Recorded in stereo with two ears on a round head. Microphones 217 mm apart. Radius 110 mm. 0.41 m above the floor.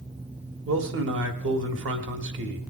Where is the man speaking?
55° right (ahead or behind), 1.6 m.